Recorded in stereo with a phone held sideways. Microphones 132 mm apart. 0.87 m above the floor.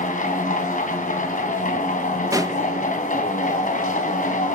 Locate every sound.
0.0 s a machine running: 80° left, 2.5 m
2.3 s a pop: 25° right (ahead or behind), 1.0 m